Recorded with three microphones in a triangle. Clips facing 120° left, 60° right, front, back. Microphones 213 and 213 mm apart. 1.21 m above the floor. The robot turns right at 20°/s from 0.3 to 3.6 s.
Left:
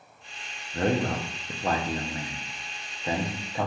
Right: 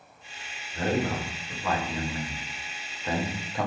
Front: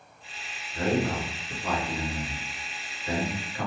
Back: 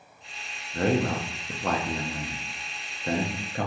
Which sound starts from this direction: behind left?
A man speaking, at 0.7 s.